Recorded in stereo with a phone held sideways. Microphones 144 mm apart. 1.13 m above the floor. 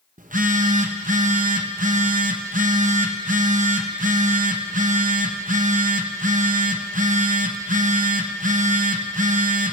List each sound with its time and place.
0.2 s a phone buzzing: 70° right (ahead or behind), 0.8 m